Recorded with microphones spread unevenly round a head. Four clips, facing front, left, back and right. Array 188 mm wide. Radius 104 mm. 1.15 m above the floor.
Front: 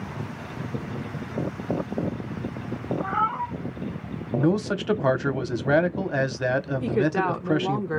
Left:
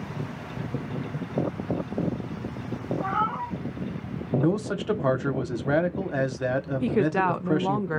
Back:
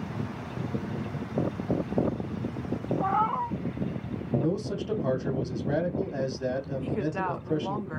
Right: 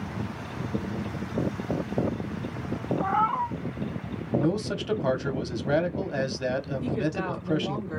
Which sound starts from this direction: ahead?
A man speaking, at 4.4 s.